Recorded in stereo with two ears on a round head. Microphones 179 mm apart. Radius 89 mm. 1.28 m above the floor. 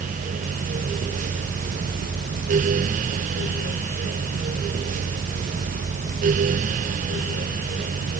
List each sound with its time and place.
Only background noise.